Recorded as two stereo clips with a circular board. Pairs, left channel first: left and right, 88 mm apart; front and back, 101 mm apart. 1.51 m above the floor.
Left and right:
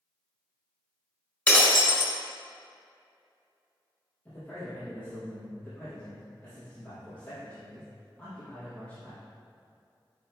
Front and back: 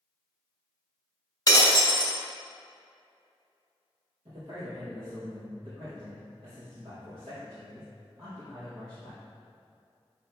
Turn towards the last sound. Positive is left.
turn(degrees=160)